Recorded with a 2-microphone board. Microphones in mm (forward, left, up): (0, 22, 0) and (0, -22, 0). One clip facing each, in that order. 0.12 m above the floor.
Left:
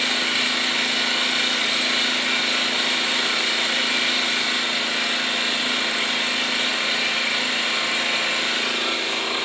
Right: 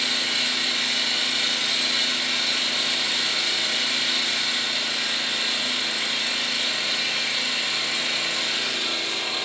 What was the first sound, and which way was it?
An engine running, 35° left (ahead or behind).